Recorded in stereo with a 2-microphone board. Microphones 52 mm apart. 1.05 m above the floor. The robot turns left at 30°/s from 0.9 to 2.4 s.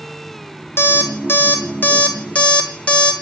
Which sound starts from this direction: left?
An alarm clock, at 0.8 s.